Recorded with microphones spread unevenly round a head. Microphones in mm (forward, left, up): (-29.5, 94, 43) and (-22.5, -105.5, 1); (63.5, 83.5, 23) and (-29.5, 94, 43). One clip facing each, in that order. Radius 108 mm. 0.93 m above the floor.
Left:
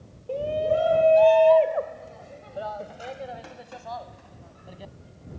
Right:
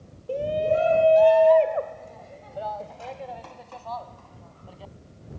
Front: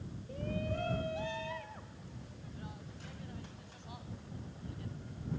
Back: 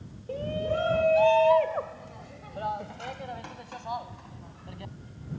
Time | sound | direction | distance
0.3 | a shout | 165° right | ?